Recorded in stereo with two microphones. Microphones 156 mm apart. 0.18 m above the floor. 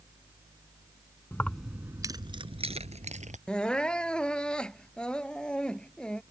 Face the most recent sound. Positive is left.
turn(degrees=5)  # may be behind; listen again after turning